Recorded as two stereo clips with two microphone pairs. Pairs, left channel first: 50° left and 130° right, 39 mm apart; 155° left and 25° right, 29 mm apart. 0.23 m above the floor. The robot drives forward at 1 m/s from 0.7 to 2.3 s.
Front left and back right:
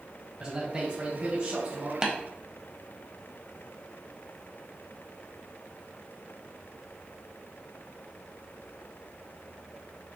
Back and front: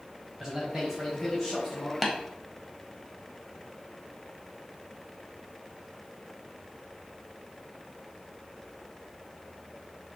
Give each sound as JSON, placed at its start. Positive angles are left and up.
{"t": 0.4, "sound": "a man speaking", "azimuth_deg": -85, "distance_m": 1.4}
{"t": 2.0, "sound": "tapping", "azimuth_deg": -110, "distance_m": 1.0}